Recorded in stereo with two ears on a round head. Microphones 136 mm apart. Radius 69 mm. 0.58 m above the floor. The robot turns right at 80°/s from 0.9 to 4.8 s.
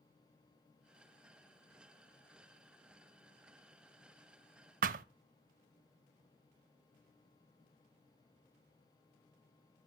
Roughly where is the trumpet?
No trumpet in this recording.